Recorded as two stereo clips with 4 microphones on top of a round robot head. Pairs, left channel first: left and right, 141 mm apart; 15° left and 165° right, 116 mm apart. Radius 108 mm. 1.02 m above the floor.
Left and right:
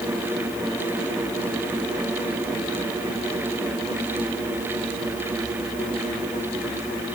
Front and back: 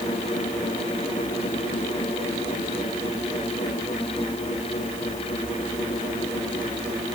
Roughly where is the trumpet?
I don't hear a trumpet.